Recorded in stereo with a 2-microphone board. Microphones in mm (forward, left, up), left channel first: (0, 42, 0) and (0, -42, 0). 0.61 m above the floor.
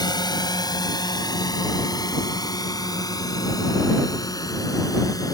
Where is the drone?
55° left (ahead or behind); by 5.3 s 45° left (ahead or behind).